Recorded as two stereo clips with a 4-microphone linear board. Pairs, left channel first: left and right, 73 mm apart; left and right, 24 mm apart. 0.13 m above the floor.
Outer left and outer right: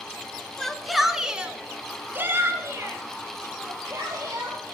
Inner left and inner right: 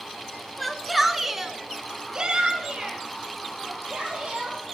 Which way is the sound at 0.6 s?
5° left (ahead or behind).